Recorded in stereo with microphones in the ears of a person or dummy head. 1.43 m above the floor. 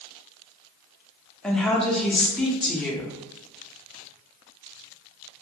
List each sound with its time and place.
1.4 s a woman speaking: 5° left (ahead or behind), 0.6 m